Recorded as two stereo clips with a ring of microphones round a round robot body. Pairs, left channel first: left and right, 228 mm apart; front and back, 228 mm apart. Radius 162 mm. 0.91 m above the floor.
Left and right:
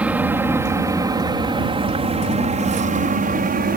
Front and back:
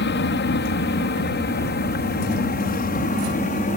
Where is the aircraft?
10° right; by 3.8 s 55° right.